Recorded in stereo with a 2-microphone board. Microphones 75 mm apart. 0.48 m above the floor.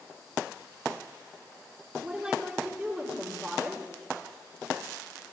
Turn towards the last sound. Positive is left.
turn(degrees=-15)  # may be behind; listen again after turning